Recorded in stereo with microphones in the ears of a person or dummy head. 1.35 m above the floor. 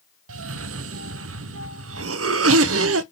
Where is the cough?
80° right, 0.6 m.